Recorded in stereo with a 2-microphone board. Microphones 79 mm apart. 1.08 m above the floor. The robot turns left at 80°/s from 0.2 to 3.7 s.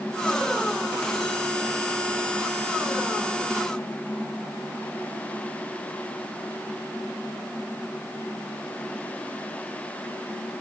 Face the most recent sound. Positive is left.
No sound to turn to.